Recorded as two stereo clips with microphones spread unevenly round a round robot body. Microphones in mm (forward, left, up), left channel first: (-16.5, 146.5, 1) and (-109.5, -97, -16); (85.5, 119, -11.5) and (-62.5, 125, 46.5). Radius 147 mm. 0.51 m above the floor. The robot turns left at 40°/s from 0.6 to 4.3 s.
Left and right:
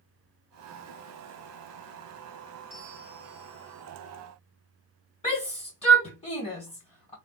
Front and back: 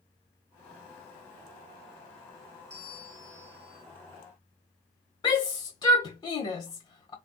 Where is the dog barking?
I don't hear a dog barking.